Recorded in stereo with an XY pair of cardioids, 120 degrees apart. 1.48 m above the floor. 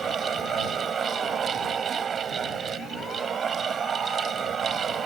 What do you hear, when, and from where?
0.0 s a fan: 40° right